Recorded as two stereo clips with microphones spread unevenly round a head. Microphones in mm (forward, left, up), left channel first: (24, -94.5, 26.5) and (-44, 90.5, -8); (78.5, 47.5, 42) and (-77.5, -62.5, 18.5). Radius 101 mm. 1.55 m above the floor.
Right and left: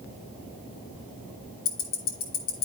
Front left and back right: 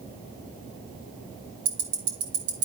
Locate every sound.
1.6 s ticking: 105° right, 1.7 m